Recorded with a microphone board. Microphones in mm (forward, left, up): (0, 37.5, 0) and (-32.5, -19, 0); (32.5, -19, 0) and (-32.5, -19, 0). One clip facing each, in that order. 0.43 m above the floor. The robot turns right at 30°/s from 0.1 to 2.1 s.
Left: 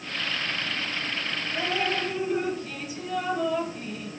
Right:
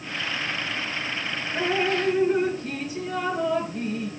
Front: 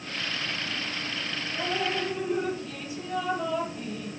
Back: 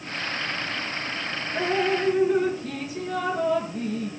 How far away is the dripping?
About 4 m.